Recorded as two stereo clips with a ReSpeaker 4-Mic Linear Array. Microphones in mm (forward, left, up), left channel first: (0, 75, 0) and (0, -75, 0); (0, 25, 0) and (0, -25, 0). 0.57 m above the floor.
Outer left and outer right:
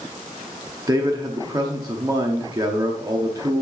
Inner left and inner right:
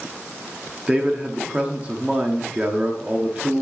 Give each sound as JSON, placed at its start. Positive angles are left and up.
{"t": 0.9, "sound": "a man speaking", "side_deg": -25, "distance_m": 0.9}